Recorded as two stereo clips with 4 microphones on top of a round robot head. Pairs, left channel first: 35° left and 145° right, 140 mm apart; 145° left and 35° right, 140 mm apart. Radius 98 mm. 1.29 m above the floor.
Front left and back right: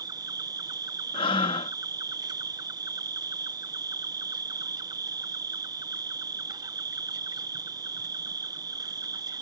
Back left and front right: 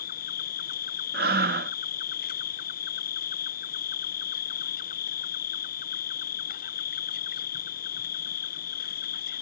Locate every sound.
0.0 s an insect: 155° left
1.1 s breathing: 20° right